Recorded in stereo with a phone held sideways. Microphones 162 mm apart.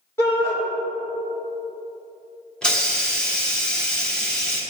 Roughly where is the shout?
Centre.